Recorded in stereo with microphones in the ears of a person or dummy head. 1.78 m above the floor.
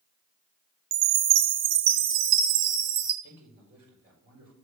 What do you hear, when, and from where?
0.9 s a chime: 25° right (ahead or behind), 1.4 m
3.2 s a man speaking: 65° right (ahead or behind), 4.5 m